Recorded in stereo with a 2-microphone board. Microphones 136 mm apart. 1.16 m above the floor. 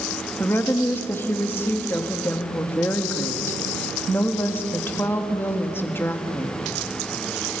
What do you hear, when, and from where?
0.4 s a woman speaking: 15° left (ahead or behind), 2.5 m